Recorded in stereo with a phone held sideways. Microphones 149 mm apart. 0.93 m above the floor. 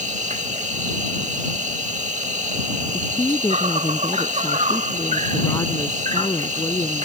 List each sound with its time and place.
0.0 s an insect: 50° right (ahead or behind)
2.9 s a woman speaking: 25° left (ahead or behind)